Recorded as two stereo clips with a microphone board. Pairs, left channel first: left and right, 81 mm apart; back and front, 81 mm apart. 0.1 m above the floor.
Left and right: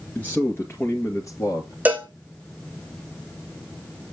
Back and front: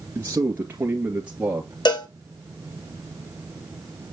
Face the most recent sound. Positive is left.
turn(degrees=-160)